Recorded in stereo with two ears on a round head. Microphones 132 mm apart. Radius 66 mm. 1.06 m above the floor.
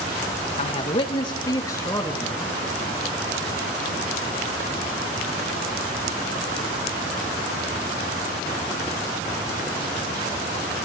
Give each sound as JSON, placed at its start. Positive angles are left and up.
{"t": 0.6, "sound": "a man speaking", "side_deg": 40, "distance_m": 1.4}